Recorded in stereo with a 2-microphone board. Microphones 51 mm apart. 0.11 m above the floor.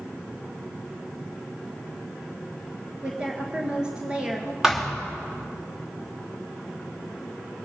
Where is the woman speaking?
15° right (ahead or behind), 1.4 m.